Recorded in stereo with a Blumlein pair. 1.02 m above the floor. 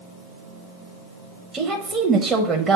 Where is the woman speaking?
20° right, 0.9 m.